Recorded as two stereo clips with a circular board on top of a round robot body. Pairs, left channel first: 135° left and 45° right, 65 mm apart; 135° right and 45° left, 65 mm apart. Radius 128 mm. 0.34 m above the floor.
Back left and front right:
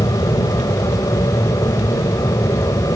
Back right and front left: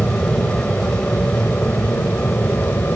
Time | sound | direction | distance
0.0 | an aircraft | 150° left | ?